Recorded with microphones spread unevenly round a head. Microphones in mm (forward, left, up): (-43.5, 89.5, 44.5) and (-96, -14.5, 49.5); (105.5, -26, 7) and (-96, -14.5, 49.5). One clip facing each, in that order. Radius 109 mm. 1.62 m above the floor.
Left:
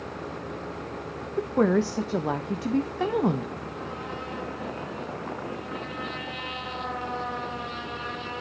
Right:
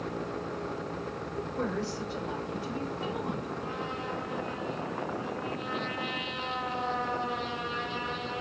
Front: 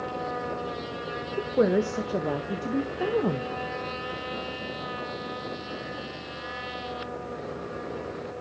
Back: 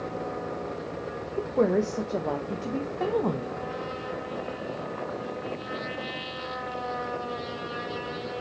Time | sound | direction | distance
1.4 | a woman speaking | 80° left | 1.2 m